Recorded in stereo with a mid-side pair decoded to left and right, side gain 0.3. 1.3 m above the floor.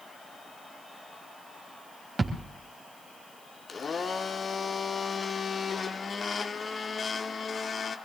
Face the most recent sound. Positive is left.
turn(degrees=50)